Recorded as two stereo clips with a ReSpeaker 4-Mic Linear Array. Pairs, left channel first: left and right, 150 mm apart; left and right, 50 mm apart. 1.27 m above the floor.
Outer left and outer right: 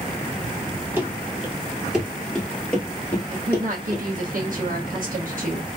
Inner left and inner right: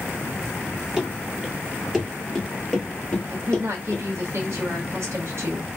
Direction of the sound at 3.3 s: 70° right (ahead or behind).